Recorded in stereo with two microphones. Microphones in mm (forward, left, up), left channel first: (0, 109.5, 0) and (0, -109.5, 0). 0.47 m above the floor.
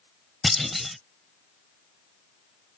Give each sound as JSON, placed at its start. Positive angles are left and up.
{"t": 0.4, "sound": "a clunk", "side_deg": 0}